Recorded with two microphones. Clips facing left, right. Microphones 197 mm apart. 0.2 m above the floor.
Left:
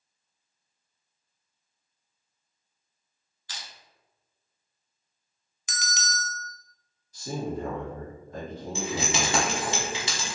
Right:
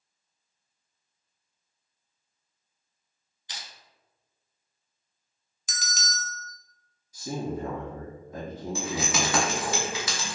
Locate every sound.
3.5 s crushing: 20° right (ahead or behind), 0.7 m
5.7 s a bell: 65° left (ahead or behind), 0.5 m
7.1 s a man speaking: 15° right (ahead or behind), 1.4 m
8.8 s keys jangling: 25° left (ahead or behind), 0.8 m